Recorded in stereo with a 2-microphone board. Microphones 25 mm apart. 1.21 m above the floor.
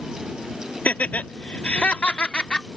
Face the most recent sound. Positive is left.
turn(degrees=40)  # may be behind; listen again after turning